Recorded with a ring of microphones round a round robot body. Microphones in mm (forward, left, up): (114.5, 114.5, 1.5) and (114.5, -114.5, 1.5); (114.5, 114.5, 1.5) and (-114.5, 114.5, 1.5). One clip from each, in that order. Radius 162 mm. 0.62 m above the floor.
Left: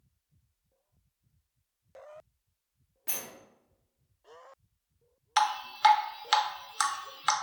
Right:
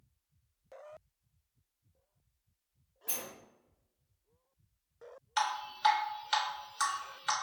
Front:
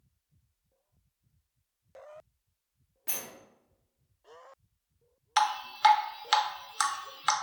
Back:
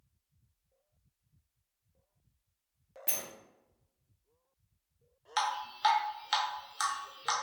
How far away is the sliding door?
About 0.8 m.